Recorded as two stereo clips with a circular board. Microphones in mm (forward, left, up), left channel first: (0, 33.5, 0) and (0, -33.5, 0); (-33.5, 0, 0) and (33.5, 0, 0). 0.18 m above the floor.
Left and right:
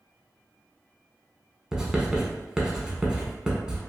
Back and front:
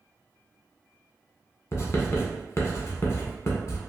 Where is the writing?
165° right, 0.7 m.